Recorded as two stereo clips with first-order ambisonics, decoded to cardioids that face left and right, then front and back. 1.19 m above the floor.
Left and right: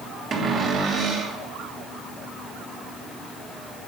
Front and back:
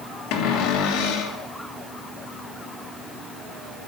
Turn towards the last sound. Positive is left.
turn(degrees=-25)